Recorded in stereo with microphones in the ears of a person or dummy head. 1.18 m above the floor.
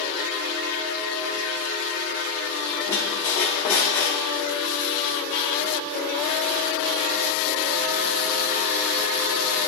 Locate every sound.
2.9 s a squeak: 20° left (ahead or behind), 1.0 m